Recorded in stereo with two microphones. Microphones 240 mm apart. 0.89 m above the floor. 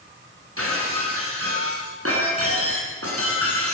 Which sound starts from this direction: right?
Breaking glass, at 0.6 s.